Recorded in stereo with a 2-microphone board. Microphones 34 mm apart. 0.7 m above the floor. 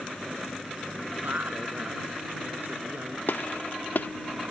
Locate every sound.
1.2 s a woman speaking: 65° right (ahead or behind)
3.3 s a gunshot: 75° left (ahead or behind)